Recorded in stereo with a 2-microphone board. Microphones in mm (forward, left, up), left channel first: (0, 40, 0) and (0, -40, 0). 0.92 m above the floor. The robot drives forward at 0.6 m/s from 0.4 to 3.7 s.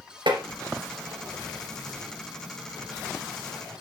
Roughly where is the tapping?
Right.